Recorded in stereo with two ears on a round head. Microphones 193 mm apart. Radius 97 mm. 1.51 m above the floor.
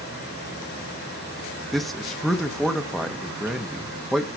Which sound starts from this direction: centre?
A man speaking, at 1.7 s.